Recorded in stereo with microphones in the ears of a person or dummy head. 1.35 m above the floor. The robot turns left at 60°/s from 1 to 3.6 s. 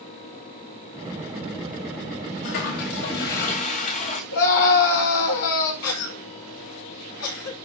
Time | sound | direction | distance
2.4 | a toilet flushing | 130° left | 1.6 m
4.3 | a scream | 80° left | 3 m
5.8 | a cough | 85° left | 4 m